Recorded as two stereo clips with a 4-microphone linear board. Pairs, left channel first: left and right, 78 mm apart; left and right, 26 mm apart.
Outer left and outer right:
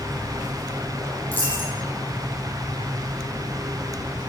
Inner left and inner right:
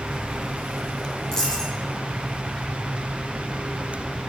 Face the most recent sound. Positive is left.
turn(degrees=25)  # may be behind; listen again after turning